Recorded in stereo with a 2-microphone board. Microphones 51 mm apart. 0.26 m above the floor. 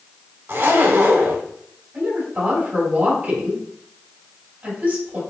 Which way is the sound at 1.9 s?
40° right (ahead or behind).